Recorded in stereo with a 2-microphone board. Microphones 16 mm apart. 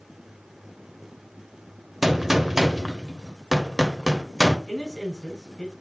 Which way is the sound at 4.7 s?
25° left (ahead or behind).